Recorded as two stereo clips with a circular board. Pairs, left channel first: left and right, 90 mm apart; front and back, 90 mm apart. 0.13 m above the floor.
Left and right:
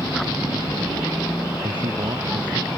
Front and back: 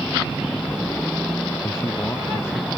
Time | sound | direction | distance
1.6 | a man speaking | 65° right | ?